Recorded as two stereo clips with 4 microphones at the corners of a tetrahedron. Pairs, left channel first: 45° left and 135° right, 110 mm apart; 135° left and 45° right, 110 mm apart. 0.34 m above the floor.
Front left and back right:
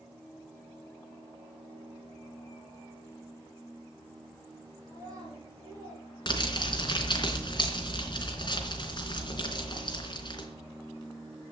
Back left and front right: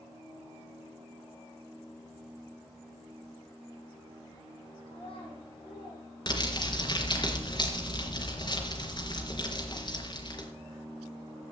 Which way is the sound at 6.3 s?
90° left.